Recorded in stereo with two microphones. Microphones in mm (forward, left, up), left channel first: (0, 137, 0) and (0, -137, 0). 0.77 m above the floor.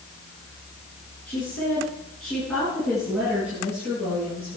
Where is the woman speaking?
5° left (ahead or behind), 10 m; by 4.6 s 5° right (ahead or behind), 12 m.